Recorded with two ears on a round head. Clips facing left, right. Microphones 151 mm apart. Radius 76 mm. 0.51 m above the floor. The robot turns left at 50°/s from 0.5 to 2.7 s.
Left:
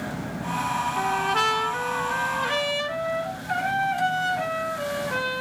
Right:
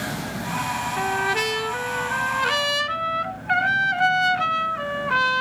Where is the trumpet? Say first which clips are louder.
Right 1 dB; 10° left, 1.1 m; by 5.4 s 80° right, 1.1 m.